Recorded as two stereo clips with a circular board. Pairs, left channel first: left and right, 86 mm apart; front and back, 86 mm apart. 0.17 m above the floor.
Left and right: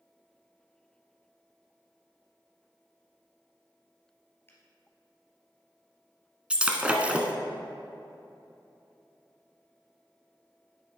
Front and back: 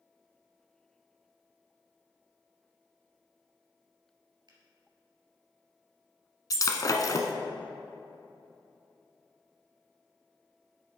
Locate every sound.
4.5 s a finger snap: 150° left, 2.5 m
6.5 s breaking glass: 20° right, 1.0 m